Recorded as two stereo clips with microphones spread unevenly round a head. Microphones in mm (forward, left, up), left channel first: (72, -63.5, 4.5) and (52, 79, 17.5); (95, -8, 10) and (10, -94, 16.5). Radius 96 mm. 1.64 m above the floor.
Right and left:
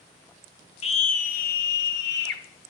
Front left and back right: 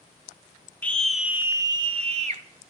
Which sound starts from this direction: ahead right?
A scream, at 0.8 s.